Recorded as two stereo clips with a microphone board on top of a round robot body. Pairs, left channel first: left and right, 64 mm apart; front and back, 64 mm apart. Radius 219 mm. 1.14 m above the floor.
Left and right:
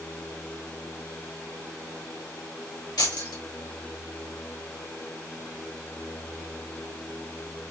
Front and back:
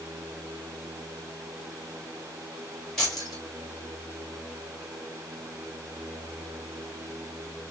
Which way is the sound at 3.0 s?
85° left.